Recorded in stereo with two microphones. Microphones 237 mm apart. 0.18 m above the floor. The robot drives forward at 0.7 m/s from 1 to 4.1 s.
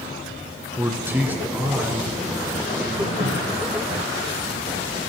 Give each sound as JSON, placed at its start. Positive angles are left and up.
{"t": 0.8, "sound": "a man speaking", "side_deg": -10, "distance_m": 1.4}
{"t": 3.2, "sound": "a cupboard door", "side_deg": -35, "distance_m": 3.0}